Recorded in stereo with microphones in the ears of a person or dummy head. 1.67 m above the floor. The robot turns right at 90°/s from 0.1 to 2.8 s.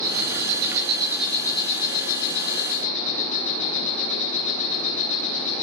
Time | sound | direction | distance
0.0 | an insect | 105° right | 8.5 m